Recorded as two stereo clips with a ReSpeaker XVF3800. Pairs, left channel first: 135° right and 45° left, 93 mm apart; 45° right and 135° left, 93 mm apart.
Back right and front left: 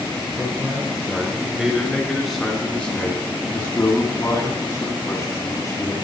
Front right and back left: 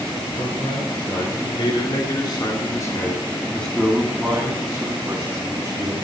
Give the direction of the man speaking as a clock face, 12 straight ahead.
1 o'clock.